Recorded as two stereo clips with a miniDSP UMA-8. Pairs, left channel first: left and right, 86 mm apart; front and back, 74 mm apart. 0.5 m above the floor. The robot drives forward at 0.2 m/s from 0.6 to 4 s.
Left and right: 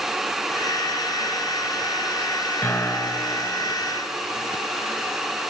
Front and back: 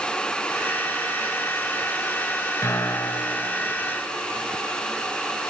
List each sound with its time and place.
2.6 s a piano: 40° left, 2.5 m; by 3.4 s 45° left, 2.5 m